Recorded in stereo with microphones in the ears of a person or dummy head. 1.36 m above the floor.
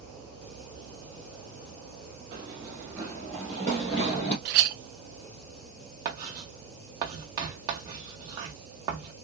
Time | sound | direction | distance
2.3 | running footsteps | 25° right (ahead or behind) | 1.4 m
4.5 | a clink | 55° right (ahead or behind) | 0.6 m
6.0 | writing | 15° right (ahead or behind) | 0.9 m